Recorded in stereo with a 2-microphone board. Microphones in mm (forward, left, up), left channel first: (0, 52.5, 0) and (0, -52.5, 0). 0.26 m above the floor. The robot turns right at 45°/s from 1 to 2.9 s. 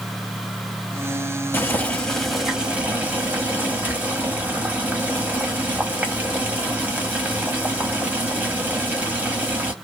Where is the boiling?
145° left, 1.0 m; by 9.7 s 155° right, 1.0 m.